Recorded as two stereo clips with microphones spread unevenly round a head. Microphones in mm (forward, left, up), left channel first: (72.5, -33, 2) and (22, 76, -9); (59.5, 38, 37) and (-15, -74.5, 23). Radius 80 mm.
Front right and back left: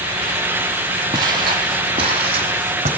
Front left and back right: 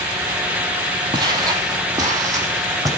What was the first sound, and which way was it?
Footsteps, 175° left.